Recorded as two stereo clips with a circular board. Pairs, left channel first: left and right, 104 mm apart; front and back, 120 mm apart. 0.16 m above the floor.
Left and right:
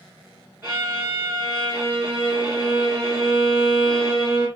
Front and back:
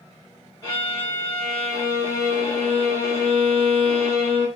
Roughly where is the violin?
Ahead right.